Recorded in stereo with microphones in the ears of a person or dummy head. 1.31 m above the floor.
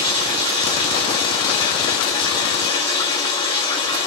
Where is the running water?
35° left (ahead or behind), 2 m.